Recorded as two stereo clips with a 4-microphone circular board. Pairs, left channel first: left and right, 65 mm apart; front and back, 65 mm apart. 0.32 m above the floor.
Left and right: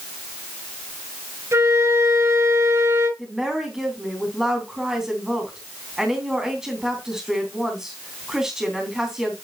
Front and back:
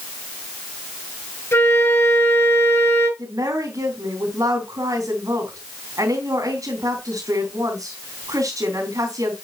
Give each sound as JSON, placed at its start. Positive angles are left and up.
{"t": 1.5, "sound": "a flute", "azimuth_deg": -45, "distance_m": 6.5}
{"t": 3.2, "sound": "a woman speaking", "azimuth_deg": -170, "distance_m": 3.0}